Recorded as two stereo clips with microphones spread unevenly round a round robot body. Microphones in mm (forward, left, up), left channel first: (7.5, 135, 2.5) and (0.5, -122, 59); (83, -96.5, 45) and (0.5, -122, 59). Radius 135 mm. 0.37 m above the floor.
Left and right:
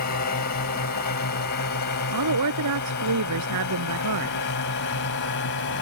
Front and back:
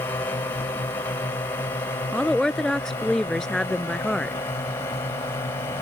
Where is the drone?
70° left.